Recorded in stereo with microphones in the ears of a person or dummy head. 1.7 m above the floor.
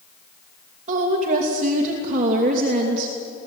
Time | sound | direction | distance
0.9 | a woman speaking | 40° right (ahead or behind) | 3 m